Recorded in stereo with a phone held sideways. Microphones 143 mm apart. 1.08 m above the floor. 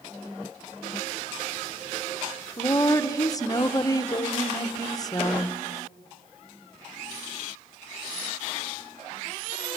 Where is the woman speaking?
25° left (ahead or behind), 0.9 m.